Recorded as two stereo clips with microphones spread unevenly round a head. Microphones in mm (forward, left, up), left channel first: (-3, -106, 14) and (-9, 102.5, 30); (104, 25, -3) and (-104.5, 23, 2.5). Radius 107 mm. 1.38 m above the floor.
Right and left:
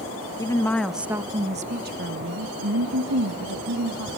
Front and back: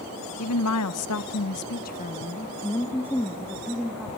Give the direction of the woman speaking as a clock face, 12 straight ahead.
12 o'clock.